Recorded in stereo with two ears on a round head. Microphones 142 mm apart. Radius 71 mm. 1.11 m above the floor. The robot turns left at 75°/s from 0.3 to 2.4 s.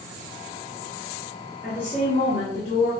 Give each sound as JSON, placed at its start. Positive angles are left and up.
{"t": 1.6, "sound": "a woman speaking", "azimuth_deg": 175, "distance_m": 1.4}